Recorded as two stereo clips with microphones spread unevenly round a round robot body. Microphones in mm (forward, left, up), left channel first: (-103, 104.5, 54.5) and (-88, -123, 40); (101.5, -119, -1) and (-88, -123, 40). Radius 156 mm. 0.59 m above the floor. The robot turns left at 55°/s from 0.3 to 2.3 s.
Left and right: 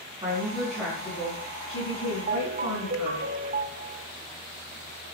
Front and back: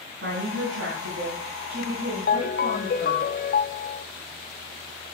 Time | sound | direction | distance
0.2 | a woman speaking | 155° right | 5 m
2.3 | a ringtone | 25° right | 1.2 m